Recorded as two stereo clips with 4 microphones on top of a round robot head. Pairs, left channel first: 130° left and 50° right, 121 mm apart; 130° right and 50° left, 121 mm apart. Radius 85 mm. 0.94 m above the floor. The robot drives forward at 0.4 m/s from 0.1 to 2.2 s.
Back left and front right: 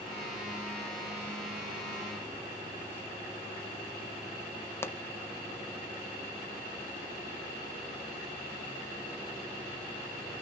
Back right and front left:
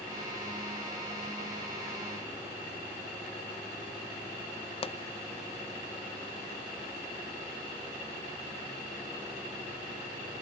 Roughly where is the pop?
Behind.